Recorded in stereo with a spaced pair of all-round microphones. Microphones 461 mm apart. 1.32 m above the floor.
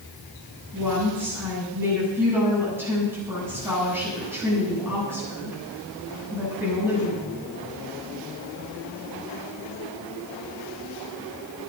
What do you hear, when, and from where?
0.7 s a woman speaking: 5° right (ahead or behind), 8.5 m